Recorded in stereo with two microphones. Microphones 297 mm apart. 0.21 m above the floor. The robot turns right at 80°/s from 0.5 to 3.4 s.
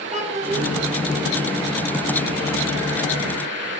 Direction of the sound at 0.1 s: 20° right (ahead or behind).